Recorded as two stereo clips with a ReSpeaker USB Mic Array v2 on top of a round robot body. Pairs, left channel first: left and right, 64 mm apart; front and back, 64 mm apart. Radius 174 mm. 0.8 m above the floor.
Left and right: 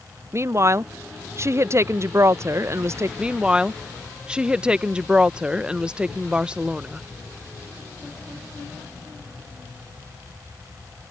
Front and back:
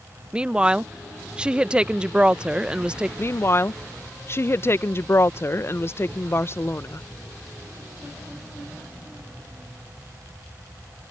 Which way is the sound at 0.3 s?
110° right.